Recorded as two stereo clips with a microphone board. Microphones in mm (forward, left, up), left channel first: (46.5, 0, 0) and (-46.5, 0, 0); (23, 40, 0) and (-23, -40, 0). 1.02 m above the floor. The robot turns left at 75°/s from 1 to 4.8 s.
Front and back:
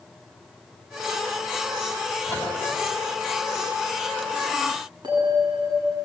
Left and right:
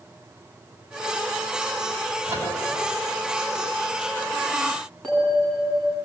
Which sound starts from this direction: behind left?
A bell, at 5.0 s.